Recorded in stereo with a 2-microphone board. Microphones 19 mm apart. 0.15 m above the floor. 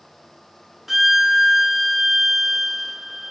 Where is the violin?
10° right (ahead or behind), 1.0 m.